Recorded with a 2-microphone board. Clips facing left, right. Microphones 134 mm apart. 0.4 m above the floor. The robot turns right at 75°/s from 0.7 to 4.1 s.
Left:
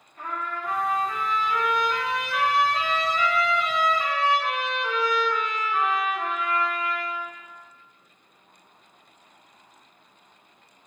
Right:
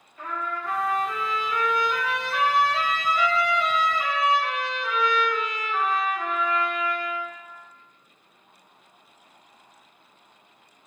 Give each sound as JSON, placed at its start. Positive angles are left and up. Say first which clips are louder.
{"t": 0.2, "sound": "a trumpet", "louder": "right 1 dB", "azimuth_deg": 90, "distance_m": 1.6}